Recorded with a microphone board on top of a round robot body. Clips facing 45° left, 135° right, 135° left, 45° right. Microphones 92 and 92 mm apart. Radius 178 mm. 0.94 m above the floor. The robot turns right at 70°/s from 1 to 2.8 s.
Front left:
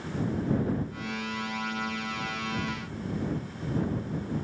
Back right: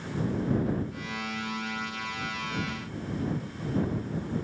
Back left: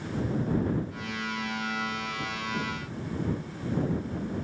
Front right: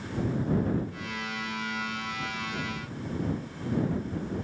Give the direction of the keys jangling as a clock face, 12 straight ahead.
I don't hear keys jangling.